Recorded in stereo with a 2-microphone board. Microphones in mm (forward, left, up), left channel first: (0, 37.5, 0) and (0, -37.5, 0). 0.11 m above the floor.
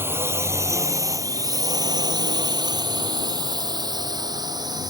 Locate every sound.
0.0 s a drone: 30° right (ahead or behind); by 4.9 s 60° right (ahead or behind)